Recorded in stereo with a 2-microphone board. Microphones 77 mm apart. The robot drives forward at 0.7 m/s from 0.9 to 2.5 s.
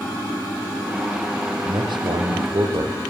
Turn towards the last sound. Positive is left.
turn(degrees=-75)  # may be behind; listen again after turning